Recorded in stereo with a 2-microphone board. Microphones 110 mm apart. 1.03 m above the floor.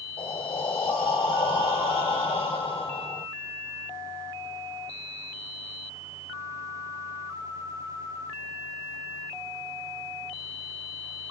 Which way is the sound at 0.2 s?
55° left (ahead or behind).